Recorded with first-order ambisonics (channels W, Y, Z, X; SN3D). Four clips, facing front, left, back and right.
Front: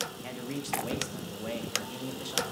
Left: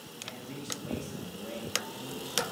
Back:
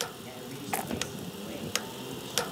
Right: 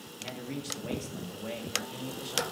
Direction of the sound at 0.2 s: 25° right.